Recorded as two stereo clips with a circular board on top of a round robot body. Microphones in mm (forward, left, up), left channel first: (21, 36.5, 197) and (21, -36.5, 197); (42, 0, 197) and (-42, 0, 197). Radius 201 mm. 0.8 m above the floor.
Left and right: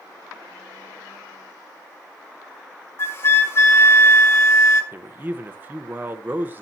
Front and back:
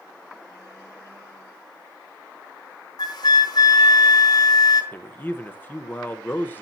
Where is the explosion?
I don't hear an explosion.